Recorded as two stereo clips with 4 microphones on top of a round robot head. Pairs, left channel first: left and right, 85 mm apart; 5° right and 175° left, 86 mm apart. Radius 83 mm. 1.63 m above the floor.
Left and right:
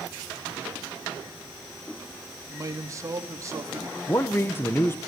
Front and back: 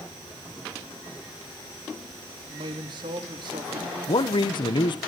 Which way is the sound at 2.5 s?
140° right.